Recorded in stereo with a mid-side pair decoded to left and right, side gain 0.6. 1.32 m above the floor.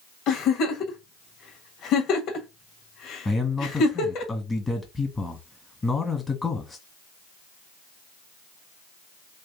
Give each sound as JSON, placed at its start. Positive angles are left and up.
{"t": 0.3, "sound": "a giggle", "azimuth_deg": 60, "distance_m": 1.4}
{"t": 3.2, "sound": "a man speaking", "azimuth_deg": 15, "distance_m": 1.8}